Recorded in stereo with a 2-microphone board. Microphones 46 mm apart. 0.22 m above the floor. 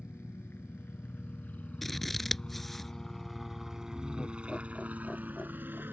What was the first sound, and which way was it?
A helicopter, 55° left (ahead or behind).